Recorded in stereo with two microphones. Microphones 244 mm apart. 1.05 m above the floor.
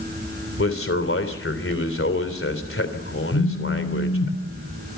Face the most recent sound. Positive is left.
turn(degrees=70)  # may be behind; listen again after turning